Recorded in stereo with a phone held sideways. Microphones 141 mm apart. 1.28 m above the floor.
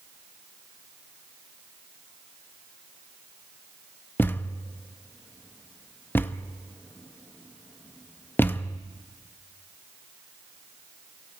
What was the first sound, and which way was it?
A thud, 15° left (ahead or behind).